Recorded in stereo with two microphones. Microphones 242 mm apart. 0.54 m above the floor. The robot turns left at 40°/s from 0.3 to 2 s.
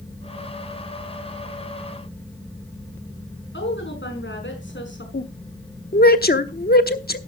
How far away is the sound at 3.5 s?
About 5 m.